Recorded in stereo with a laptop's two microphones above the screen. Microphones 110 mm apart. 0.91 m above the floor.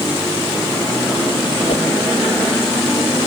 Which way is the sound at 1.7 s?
75° left (ahead or behind).